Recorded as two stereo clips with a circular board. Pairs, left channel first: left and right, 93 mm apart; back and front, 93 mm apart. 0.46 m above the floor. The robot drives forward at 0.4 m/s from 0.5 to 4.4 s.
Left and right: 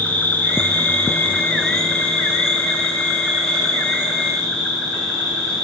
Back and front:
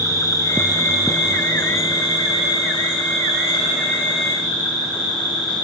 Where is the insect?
150° left, 1.1 m; by 5.6 s 170° left, 2.5 m.